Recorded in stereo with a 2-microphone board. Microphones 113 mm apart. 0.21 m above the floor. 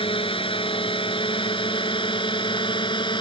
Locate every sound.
0.0 s a drone: 50° left (ahead or behind); by 3.2 s 45° left (ahead or behind)